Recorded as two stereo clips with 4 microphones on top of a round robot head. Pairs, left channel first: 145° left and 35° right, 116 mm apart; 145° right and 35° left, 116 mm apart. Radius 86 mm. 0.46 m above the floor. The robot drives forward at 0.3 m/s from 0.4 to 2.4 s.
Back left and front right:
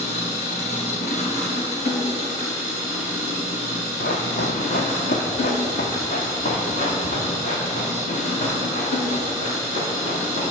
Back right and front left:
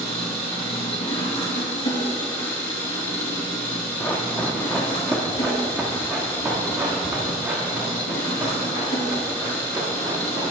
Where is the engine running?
165° left, 3.5 m.